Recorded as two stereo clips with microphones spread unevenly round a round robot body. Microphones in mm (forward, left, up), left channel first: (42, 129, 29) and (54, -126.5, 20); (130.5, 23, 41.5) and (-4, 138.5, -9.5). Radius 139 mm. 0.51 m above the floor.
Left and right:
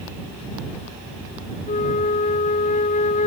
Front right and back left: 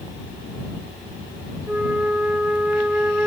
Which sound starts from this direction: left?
A flute, at 1.7 s.